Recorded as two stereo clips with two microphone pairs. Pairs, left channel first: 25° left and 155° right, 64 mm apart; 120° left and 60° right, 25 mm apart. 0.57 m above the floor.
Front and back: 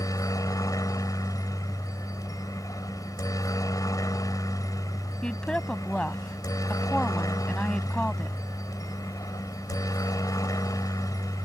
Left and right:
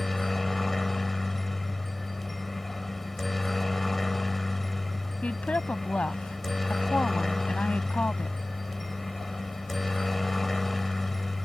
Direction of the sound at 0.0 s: 35° left.